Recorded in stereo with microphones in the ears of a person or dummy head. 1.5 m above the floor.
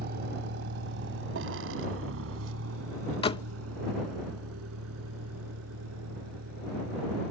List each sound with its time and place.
0.0 s a vehicle: 50° right (ahead or behind); by 7.3 s 80° right
3.2 s a door slam: 30° left (ahead or behind)